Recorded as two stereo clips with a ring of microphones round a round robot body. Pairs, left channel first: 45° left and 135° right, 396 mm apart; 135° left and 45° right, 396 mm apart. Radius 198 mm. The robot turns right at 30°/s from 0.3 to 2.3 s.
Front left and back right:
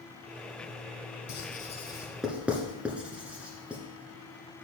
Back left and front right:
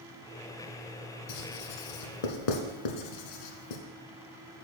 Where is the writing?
110° left, 1.2 m; by 3.8 s 140° left, 1.2 m.